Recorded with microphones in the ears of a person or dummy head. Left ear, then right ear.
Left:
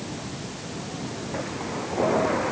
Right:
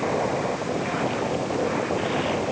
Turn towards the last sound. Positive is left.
No sound to turn to.